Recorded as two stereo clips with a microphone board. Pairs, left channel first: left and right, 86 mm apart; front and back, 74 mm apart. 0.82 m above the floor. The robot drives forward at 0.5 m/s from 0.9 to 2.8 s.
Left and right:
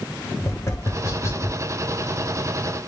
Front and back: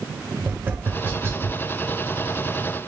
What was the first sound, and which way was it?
Tapping, 130° left.